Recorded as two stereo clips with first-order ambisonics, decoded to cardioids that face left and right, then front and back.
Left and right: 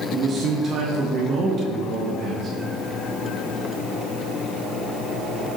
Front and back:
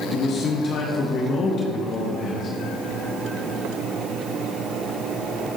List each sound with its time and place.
0.1 s a man speaking: 40° right, 0.7 m